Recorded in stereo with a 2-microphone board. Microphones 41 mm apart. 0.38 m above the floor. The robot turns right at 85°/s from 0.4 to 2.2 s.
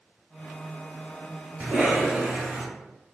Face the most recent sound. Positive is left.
turn(degrees=-65)